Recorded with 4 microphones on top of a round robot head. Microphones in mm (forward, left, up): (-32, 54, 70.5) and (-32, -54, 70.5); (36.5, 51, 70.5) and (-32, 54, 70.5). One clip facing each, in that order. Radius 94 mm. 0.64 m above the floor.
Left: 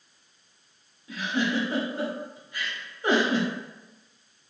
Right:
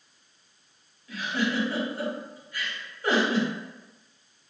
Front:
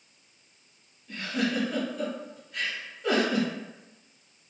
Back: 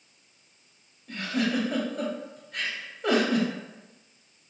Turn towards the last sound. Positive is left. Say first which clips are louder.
# left 1 dB, back 2 dB
turn(degrees=160)